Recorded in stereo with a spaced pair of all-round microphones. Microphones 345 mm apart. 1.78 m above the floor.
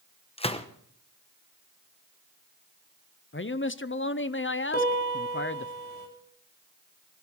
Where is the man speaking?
35° left (ahead or behind), 0.6 m.